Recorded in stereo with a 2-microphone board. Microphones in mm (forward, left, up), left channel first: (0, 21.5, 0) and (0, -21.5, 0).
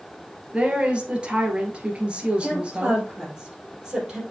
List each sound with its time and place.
0.5 s a woman speaking: 25° right (ahead or behind), 2.0 m
2.4 s a woman speaking: 15° right (ahead or behind), 4 m